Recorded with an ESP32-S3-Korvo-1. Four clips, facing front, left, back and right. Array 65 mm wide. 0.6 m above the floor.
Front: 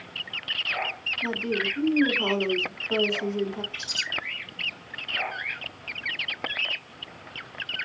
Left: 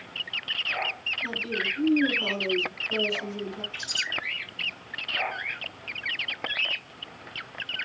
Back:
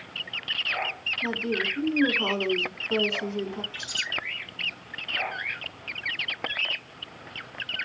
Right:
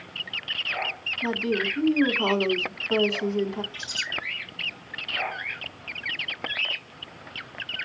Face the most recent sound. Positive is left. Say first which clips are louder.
# left 1 dB, even
turn(degrees=45)